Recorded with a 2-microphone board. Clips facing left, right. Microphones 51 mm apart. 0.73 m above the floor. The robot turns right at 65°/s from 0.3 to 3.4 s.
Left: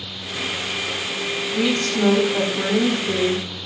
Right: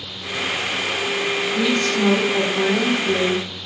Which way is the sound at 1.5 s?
140° left.